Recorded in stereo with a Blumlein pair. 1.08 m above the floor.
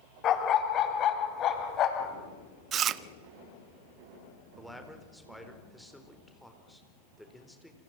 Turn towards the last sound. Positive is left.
turn(degrees=0)